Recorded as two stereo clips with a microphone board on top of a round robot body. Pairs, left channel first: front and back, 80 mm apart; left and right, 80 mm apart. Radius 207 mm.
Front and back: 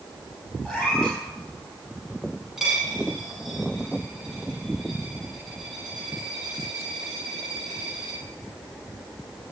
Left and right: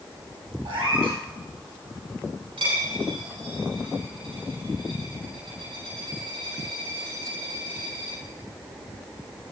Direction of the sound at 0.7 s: 80° right.